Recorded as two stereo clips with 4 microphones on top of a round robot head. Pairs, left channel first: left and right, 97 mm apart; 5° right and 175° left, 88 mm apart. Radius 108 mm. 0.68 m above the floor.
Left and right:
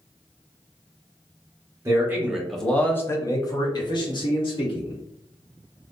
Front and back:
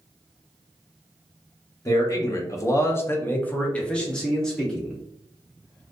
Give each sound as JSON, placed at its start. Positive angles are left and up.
{"t": 1.9, "sound": "a man speaking", "azimuth_deg": -40, "distance_m": 0.8}